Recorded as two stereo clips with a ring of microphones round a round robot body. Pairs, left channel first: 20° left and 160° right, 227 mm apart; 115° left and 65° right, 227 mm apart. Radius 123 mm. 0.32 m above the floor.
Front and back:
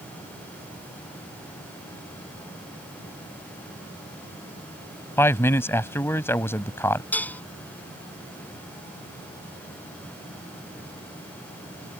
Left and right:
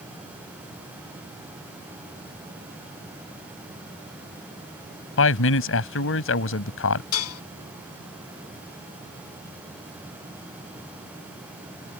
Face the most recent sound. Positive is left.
turn(degrees=105)